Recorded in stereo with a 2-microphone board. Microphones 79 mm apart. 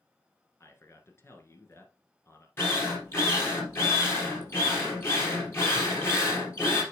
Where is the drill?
25° left (ahead or behind), 3 m.